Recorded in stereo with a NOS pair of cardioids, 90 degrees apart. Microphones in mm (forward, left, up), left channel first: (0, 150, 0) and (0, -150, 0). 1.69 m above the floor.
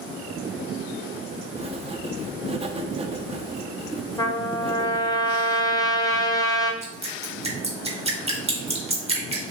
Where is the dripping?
20° right, 1.5 m.